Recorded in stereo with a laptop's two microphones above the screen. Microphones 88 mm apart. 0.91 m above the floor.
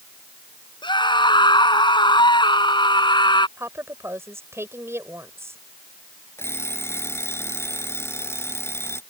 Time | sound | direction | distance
0.8 | a scream | 60° left (ahead or behind) | ?
3.6 | a woman speaking | 30° right (ahead or behind) | ?
6.4 | an alarm clock | 30° left (ahead or behind) | ?